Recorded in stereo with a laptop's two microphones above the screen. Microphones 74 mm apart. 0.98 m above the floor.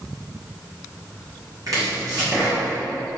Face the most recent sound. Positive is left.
turn(degrees=-55)  # may be behind; listen again after turning